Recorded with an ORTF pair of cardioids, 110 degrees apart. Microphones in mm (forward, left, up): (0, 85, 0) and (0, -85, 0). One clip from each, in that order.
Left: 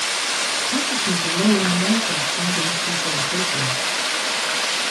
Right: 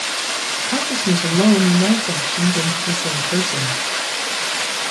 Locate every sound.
0.7 s a woman speaking: 55° right, 1.1 m